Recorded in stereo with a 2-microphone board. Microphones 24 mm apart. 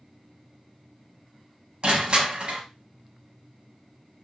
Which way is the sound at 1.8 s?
45° right (ahead or behind).